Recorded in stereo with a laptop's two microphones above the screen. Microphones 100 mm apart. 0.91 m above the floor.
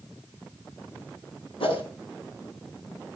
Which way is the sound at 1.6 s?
80° left.